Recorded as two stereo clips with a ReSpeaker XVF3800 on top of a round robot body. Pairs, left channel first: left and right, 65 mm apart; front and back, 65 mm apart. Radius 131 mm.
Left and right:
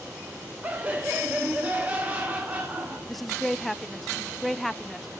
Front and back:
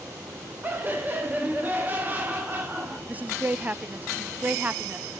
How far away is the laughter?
About 1.6 m.